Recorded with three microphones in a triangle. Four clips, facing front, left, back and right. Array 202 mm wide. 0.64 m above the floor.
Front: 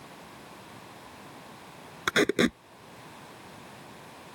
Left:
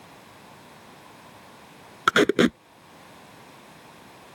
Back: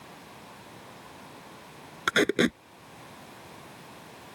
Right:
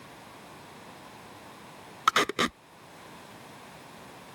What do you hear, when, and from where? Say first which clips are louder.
2.1 s tape being pulled: left 7 dB, even; 90° left